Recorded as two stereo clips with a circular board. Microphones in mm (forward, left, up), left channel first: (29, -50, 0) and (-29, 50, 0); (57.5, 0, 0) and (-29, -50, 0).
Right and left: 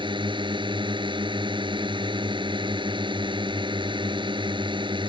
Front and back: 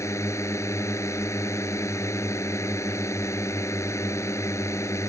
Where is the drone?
85° left.